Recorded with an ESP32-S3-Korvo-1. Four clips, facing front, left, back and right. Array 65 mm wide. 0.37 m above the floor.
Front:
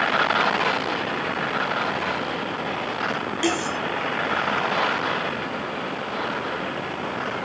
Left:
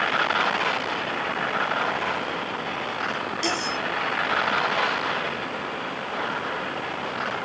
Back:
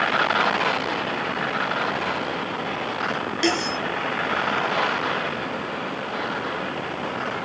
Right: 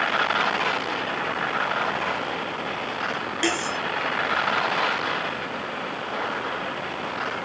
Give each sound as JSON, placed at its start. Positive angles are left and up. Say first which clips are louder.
{"t": 3.4, "sound": "cutlery clinking", "louder": "right 3 dB, back 1 dB", "azimuth_deg": -135, "distance_m": 3.5}